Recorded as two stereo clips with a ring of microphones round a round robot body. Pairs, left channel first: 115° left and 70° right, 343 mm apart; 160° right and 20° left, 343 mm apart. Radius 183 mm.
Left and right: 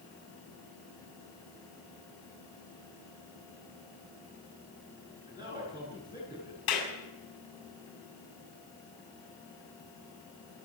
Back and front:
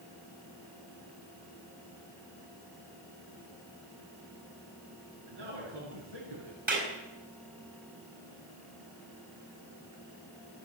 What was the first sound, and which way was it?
A man speaking, 10° left.